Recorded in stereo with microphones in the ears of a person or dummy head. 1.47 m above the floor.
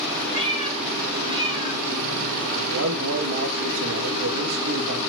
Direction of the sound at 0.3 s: 30° right (ahead or behind).